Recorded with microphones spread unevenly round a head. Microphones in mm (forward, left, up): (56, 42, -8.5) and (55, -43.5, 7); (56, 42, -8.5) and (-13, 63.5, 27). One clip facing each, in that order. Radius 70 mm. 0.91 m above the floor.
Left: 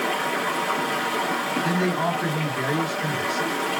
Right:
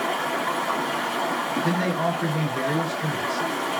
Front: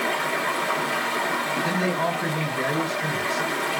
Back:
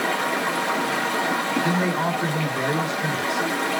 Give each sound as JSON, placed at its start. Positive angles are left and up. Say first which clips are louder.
{"t": 0.0, "sound": "running water", "louder": "even, back 1 dB", "azimuth_deg": -170, "distance_m": 1.1}
{"t": 1.6, "sound": "a man speaking", "louder": "left 1 dB, back 1 dB", "azimuth_deg": -170, "distance_m": 2.0}